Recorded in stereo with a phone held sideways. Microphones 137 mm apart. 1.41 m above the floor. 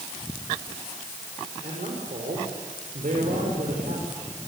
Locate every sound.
1.6 s a man speaking: 80° right, 5.5 m